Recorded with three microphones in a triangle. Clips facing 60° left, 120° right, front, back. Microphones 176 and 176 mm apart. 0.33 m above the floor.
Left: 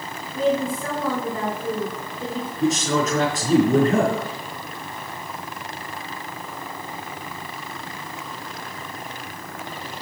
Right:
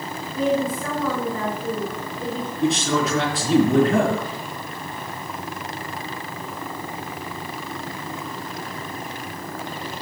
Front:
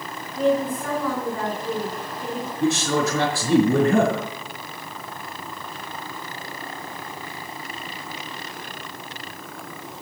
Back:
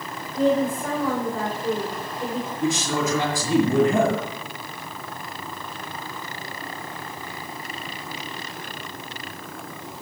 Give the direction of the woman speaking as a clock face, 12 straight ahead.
8 o'clock.